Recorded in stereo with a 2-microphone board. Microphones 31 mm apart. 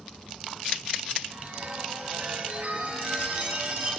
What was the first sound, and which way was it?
A chime, 60° right (ahead or behind).